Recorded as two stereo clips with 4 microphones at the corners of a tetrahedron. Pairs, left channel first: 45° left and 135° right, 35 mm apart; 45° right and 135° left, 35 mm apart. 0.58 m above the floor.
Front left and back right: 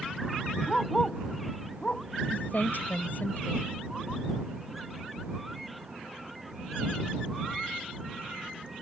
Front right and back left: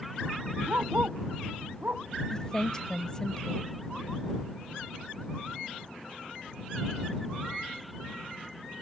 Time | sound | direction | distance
0.7 | a dog barking | 115° left | ?
2.3 | a woman speaking | 20° left | ?